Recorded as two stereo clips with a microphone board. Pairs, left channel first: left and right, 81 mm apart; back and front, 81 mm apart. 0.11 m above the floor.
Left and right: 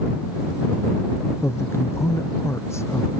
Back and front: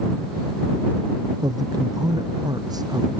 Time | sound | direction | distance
1.4 | a man speaking | 35° left | ?